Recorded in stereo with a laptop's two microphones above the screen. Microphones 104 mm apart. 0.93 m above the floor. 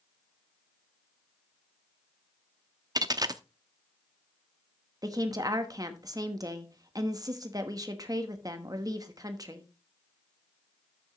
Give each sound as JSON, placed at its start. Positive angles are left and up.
{"t": 3.0, "sound": "a dropped coin", "side_deg": -40, "distance_m": 0.7}
{"t": 5.0, "sound": "a woman speaking", "side_deg": -35, "distance_m": 1.0}